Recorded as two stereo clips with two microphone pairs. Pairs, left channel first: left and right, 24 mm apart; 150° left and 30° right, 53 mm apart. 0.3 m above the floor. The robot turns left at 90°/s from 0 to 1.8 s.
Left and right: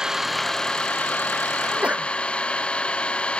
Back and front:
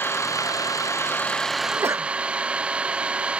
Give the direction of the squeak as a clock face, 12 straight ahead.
No squeak in this recording.